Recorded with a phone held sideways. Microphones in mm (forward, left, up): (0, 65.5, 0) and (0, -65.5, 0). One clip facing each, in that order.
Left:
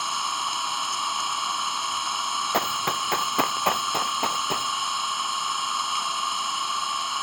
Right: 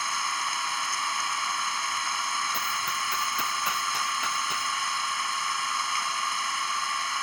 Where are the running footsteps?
65° left (ahead or behind); by 4.7 s 50° left (ahead or behind).